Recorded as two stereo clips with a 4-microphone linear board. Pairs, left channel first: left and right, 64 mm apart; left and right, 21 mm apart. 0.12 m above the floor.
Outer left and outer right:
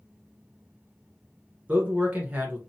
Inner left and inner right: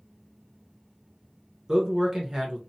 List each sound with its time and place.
1.7 s a man speaking: 25° right (ahead or behind), 1.1 m